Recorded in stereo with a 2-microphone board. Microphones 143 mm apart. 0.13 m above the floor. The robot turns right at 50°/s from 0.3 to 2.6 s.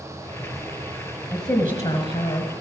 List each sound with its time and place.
1.3 s a woman speaking: 35° left, 1.6 m; by 2.5 s 95° left, 1.6 m